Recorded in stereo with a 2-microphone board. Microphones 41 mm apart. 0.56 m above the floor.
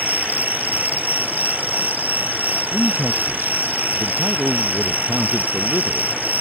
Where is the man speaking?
65° right (ahead or behind).